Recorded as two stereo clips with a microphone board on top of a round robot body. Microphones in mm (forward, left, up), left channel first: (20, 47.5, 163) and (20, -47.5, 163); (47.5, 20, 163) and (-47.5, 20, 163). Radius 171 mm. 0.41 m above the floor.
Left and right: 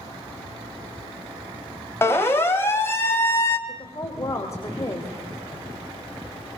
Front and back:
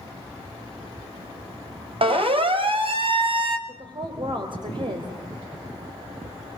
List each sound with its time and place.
2.0 s a siren: 155° left, 3.5 m
3.7 s a woman speaking: 150° left, 3 m